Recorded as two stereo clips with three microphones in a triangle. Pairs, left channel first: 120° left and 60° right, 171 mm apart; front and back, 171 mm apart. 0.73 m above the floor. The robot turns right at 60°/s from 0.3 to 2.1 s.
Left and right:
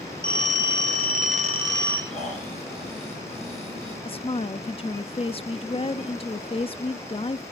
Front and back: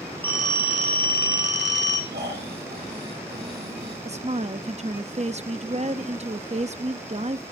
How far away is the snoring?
About 8.5 m.